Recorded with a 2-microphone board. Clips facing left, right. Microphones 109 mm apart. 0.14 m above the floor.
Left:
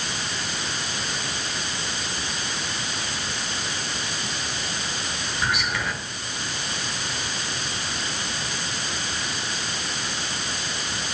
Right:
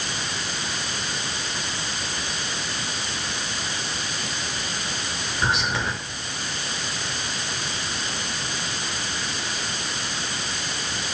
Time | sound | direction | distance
5.4 | whispering | 25° right (ahead or behind) | 2.5 m